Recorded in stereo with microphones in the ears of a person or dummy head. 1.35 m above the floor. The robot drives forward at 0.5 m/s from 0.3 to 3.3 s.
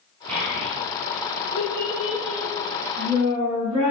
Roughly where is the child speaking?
Right.